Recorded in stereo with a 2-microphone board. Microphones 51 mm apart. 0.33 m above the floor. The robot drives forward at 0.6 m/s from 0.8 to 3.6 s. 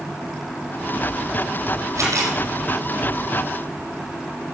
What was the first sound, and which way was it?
A camera shutter, 85° right.